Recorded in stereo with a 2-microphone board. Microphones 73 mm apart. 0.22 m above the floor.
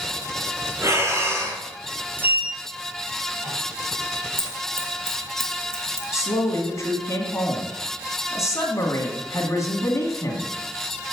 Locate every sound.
0.8 s breathing: 40° right (ahead or behind), 1.9 m
2.2 s a sliding door: 30° right (ahead or behind), 1.2 m
4.4 s scissors: 35° right (ahead or behind), 2.5 m
6.1 s a woman speaking: 45° left (ahead or behind), 2.0 m